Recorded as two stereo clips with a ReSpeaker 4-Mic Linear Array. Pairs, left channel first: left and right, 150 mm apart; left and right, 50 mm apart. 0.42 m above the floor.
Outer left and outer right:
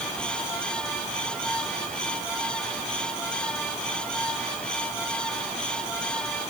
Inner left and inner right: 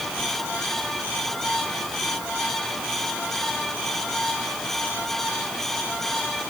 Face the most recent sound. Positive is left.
No sound to turn to.